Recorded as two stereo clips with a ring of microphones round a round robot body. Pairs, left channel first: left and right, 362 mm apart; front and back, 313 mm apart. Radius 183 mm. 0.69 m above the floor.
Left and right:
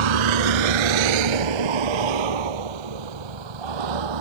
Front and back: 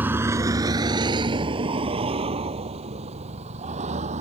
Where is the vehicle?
95° right; by 4.2 s 105° right.